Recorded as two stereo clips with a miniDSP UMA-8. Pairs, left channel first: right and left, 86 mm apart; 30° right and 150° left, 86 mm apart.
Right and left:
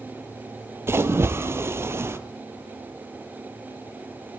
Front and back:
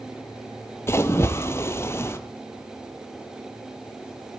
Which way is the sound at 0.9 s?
30° left.